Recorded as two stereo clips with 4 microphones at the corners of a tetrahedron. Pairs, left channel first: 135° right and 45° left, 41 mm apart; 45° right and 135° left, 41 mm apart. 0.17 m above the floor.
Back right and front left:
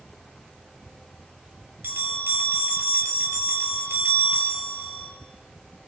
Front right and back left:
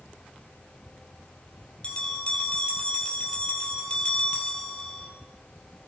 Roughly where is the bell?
Ahead.